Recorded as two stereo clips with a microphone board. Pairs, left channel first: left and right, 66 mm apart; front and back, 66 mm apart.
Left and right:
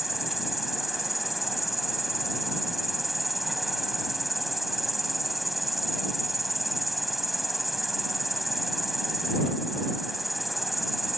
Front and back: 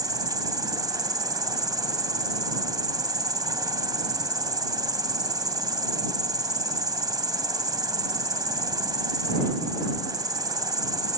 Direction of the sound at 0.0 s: Straight behind.